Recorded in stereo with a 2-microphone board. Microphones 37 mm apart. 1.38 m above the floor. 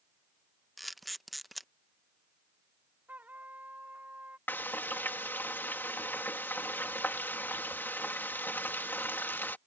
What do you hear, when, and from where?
0.8 s a camera shutter: centre (ahead or behind)
3.1 s a trumpet: 55° right (ahead or behind)
4.5 s frying: 70° left (ahead or behind)